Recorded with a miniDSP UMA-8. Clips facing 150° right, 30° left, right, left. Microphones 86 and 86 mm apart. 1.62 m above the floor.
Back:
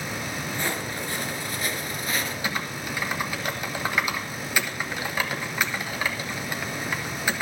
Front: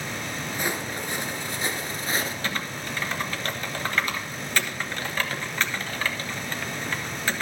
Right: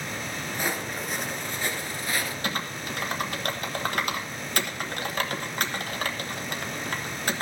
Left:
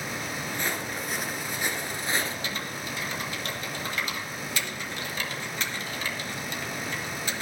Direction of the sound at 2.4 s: 75° right.